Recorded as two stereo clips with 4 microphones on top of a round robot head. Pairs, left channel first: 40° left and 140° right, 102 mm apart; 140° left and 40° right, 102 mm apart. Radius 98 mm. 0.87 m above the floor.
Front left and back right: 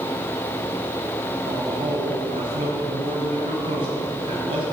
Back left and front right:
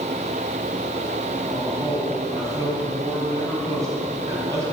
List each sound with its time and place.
1.4 s a man speaking: 100° right, 5 m